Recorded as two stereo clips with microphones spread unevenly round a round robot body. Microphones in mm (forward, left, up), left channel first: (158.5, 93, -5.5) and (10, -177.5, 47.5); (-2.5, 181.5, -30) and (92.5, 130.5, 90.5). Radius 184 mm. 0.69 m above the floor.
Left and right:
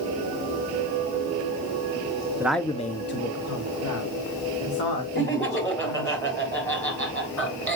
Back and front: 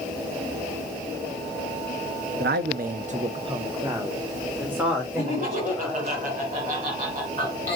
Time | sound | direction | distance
2.4 | a man speaking | 30° right | 0.7 m
5.2 | laughter | 20° right | 5 m